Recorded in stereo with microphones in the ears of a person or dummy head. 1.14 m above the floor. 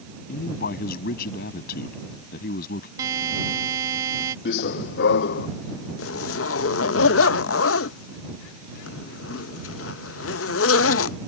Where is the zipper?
75° left (ahead or behind).